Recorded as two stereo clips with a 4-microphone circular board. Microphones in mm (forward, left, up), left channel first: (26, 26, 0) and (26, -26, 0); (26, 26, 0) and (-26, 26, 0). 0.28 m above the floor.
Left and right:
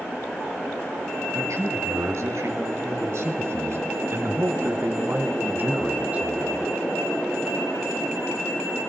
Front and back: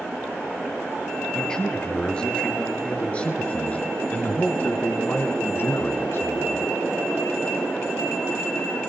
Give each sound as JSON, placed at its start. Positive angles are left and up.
{"t": 1.3, "sound": "a man speaking", "azimuth_deg": -75, "distance_m": 5.5}